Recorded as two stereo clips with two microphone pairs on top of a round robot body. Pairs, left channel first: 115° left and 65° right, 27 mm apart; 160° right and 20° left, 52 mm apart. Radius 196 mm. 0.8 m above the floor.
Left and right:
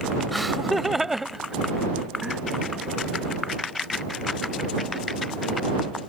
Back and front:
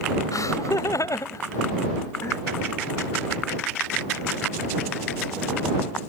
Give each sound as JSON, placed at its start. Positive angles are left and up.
{"t": 0.3, "sound": "laughter", "azimuth_deg": -155}